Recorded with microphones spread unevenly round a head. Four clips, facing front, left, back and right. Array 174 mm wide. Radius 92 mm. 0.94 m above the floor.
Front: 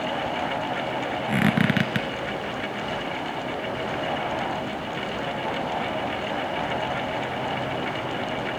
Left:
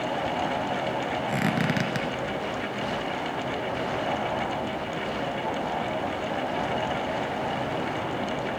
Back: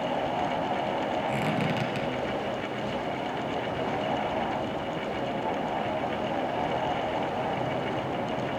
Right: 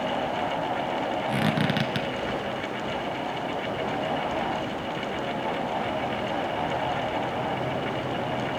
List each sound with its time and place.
1.3 s a squeak: 5° right, 1.4 m